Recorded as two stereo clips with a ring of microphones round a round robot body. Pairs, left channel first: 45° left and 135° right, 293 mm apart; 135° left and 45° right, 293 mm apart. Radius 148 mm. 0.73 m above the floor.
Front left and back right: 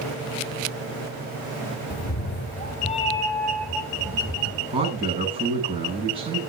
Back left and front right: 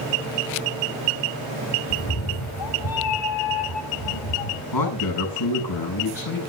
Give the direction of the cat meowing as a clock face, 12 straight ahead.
9 o'clock.